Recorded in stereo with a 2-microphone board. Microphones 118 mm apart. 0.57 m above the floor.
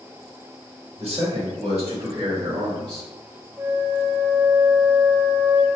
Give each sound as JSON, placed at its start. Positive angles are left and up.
{"t": 1.0, "sound": "a man speaking", "side_deg": -60, "distance_m": 1.9}
{"t": 3.6, "sound": "a flute", "side_deg": -20, "distance_m": 0.5}